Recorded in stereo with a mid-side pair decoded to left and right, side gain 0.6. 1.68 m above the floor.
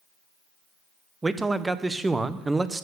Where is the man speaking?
15° right, 1.1 m.